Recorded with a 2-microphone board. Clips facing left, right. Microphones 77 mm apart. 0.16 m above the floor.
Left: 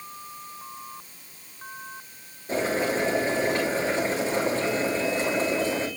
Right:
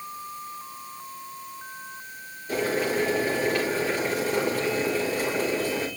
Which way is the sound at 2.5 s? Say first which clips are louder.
Even; 25° left (ahead or behind).